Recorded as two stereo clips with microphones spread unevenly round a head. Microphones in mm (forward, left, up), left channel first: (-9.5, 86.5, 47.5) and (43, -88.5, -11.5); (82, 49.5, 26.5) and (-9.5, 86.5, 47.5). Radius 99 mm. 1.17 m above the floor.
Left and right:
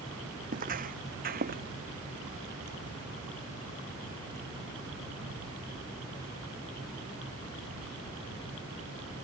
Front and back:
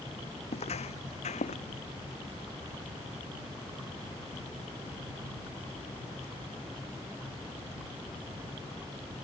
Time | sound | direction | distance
0.5 | footsteps | 25° right | ?